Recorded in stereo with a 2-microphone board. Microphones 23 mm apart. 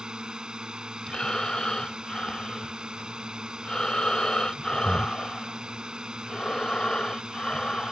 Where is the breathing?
45° left (ahead or behind).